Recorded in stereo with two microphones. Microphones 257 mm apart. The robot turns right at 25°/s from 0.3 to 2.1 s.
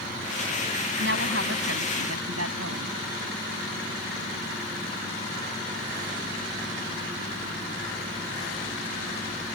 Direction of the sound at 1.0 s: 50° right (ahead or behind).